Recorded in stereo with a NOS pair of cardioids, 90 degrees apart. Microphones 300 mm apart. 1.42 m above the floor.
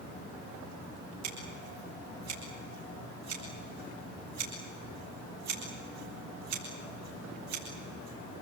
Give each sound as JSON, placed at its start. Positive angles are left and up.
{"t": 1.2, "sound": "scissors", "azimuth_deg": -55, "distance_m": 9.0}